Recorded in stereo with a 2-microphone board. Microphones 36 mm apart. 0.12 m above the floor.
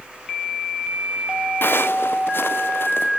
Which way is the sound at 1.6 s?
75° left (ahead or behind).